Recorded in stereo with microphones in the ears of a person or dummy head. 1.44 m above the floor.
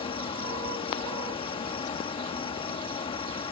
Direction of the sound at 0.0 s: 25° left (ahead or behind).